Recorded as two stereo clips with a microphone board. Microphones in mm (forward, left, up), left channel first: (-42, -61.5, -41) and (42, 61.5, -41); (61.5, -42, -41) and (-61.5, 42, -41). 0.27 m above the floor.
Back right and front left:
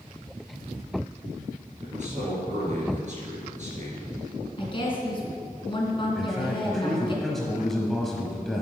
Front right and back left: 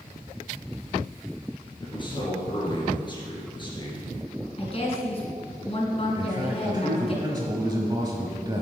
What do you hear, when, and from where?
1.8 s a man speaking: 20° left, 3.5 m
4.6 s a woman speaking: 75° right, 2.5 m
6.2 s a man speaking: 150° left, 1.0 m